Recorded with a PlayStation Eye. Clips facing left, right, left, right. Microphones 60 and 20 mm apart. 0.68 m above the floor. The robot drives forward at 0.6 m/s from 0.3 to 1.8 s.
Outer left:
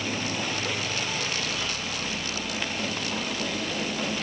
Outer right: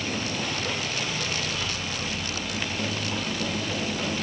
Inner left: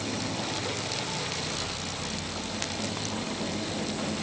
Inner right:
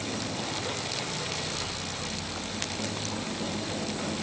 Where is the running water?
15° left (ahead or behind), 1.1 m; by 4.2 s 5° left (ahead or behind), 1.9 m.